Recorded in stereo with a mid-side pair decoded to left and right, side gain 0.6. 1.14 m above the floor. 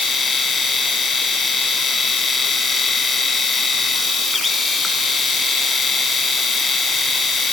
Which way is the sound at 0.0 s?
30° left.